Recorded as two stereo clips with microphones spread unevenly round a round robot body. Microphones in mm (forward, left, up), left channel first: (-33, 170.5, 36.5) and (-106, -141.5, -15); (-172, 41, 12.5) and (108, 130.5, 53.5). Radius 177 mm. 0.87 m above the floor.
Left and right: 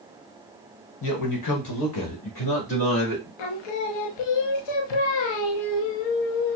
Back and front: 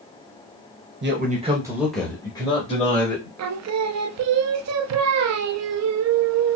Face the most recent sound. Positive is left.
turn(degrees=60)